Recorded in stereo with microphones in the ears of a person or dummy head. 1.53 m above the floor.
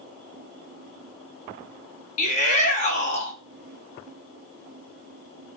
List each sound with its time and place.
2.2 s a shout: 45° left (ahead or behind), 1.5 m